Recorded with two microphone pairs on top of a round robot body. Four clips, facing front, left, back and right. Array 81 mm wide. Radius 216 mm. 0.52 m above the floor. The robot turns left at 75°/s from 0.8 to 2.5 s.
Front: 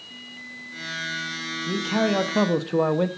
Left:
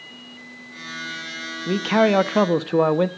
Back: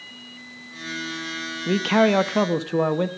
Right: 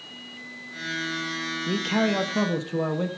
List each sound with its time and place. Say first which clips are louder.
1.7 s a man speaking: left 7 dB, back 5 dB; 150° left, 1.1 m; by 3.1 s 85° left, 1.1 m